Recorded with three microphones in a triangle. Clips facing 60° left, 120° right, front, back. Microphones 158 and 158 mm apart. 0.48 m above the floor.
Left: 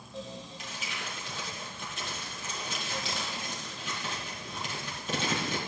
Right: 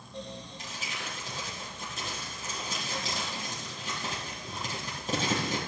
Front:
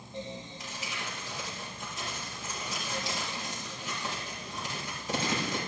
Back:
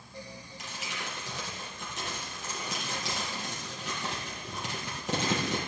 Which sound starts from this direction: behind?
Crumpling, at 0.6 s.